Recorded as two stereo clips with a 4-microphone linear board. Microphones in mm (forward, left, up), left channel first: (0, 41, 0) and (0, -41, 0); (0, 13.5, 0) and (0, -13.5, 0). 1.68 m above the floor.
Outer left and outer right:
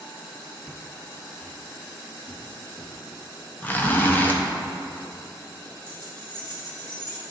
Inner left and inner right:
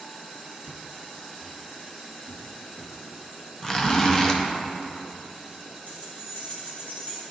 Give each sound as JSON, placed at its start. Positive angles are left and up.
{"t": 0.6, "sound": "footsteps", "side_deg": -10, "distance_m": 1.7}
{"t": 3.6, "sound": "a zipper", "side_deg": 20, "distance_m": 0.7}
{"t": 5.9, "sound": "keys jangling", "side_deg": 55, "distance_m": 2.0}